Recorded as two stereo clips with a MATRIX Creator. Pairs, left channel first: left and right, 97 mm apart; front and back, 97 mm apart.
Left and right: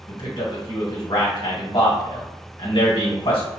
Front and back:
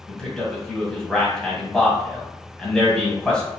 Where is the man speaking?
80° left, 1.7 m.